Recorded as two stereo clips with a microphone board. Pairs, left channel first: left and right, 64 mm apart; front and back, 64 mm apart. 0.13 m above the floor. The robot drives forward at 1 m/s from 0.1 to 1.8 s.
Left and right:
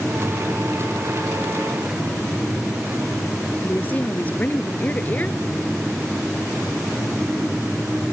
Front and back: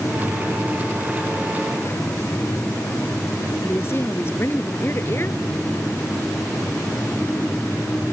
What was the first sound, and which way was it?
A woman speaking, 35° left.